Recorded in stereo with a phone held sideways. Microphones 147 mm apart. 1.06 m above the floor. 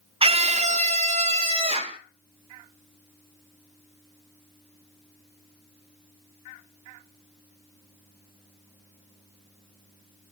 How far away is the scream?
About 0.5 m.